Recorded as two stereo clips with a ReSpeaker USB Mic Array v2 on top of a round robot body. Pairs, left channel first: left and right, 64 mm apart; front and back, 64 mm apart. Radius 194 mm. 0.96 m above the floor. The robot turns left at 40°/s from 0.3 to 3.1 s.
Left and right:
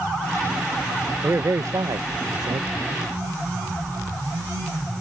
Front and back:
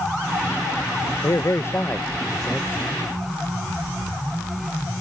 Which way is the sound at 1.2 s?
35° right.